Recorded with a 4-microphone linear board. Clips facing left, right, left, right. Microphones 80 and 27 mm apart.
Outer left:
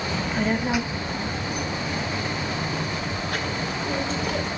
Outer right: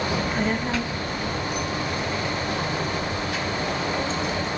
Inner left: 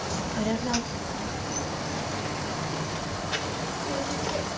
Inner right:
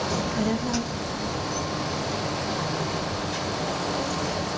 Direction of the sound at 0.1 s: 15° right (ahead or behind).